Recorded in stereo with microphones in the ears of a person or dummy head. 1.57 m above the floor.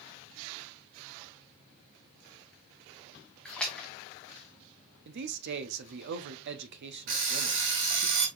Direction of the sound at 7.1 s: 55° right (ahead or behind).